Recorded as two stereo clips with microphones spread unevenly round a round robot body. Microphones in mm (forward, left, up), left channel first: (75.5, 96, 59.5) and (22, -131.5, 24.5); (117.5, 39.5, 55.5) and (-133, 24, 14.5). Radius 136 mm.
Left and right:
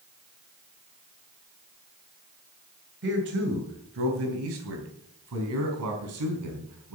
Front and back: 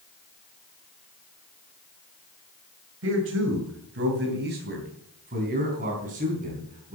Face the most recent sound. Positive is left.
turn(degrees=-115)